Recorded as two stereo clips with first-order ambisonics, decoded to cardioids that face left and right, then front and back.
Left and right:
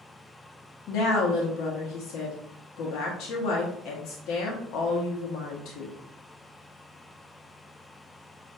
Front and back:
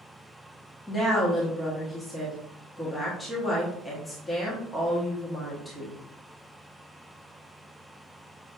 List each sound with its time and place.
0.9 s a woman speaking: 75° left, 0.9 m